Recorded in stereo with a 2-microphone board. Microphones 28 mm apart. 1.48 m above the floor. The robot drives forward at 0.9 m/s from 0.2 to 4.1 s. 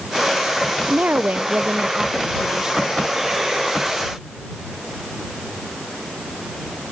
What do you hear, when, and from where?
0.9 s a woman speaking: 85° right; by 3.0 s 20° right (ahead or behind)